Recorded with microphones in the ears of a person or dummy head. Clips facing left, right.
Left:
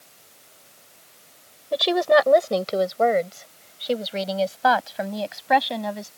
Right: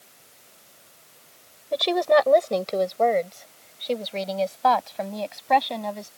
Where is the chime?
No chime in this recording.